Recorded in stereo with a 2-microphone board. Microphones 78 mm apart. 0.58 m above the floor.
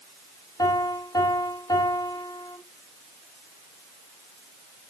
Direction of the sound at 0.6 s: 55° left (ahead or behind).